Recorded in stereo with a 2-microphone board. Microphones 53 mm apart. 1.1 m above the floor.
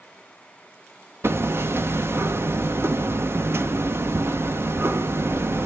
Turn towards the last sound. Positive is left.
turn(degrees=-50)  # may be behind; listen again after turning